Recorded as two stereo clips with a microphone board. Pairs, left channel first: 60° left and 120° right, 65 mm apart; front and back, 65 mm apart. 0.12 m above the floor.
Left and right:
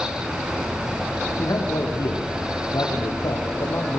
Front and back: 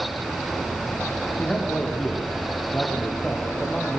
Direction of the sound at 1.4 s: 75° left.